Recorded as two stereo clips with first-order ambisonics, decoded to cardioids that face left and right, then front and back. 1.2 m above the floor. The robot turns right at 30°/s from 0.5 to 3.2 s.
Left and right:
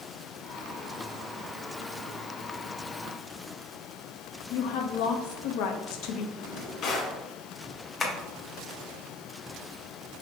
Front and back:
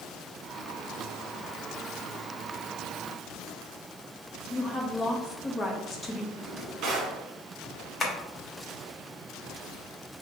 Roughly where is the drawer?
Behind left.